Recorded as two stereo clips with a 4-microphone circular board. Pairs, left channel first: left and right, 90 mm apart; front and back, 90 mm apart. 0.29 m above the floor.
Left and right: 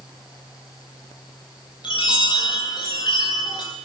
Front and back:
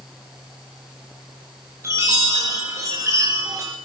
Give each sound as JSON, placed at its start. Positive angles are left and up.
{"t": 1.8, "sound": "a chime", "azimuth_deg": 120, "distance_m": 8.0}